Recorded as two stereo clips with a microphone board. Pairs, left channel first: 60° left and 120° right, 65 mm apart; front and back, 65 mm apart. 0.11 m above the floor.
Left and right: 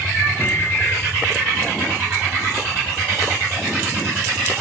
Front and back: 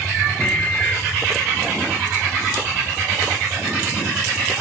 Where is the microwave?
55° left, 1.3 m.